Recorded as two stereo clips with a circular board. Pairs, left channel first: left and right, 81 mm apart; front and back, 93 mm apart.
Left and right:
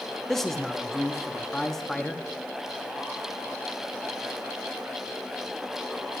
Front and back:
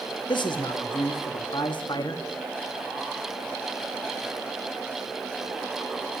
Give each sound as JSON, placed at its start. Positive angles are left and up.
{"t": 0.3, "sound": "a man speaking", "azimuth_deg": 5, "distance_m": 0.9}